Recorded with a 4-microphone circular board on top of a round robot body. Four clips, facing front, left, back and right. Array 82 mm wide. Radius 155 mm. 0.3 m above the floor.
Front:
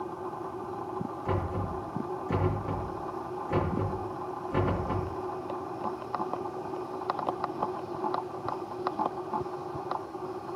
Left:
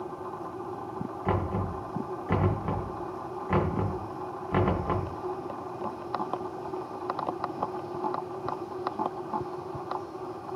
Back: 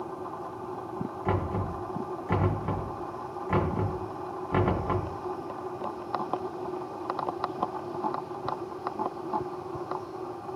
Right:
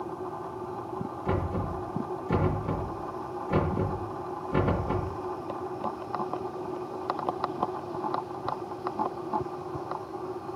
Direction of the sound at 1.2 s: 120° left.